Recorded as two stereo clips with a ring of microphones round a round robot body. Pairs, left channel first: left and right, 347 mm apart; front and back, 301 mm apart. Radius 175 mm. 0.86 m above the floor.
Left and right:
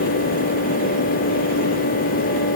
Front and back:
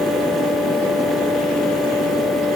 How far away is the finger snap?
No finger snap in this recording.